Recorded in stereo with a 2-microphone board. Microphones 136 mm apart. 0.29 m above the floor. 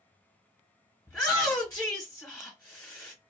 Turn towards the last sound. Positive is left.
turn(degrees=15)  # may be behind; listen again after turning